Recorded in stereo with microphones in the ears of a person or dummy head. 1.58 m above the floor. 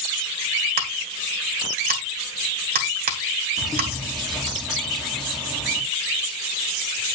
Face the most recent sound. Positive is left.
turn(degrees=0)  # may be behind; listen again after turning